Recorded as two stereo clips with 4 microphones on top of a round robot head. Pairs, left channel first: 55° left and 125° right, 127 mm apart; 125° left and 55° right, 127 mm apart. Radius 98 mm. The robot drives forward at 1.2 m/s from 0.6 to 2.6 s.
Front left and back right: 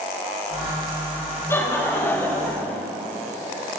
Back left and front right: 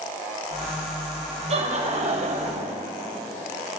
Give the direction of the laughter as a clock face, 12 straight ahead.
1 o'clock.